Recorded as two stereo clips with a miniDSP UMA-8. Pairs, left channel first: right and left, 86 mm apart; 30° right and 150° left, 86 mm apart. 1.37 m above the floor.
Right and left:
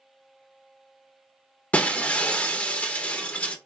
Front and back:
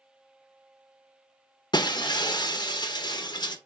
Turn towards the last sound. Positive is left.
turn(degrees=-20)